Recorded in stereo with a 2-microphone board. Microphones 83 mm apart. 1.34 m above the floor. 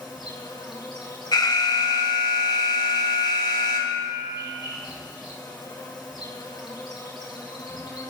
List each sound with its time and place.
0.0 s an insect: 70° left (ahead or behind), 5.5 m
1.3 s an alarm: 60° left (ahead or behind), 1.2 m